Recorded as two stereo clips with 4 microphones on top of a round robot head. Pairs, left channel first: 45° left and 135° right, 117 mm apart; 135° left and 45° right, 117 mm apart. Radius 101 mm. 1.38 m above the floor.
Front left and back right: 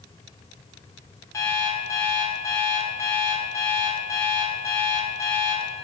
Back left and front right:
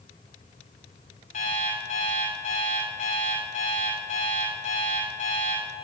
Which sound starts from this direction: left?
An alarm clock, at 1.3 s.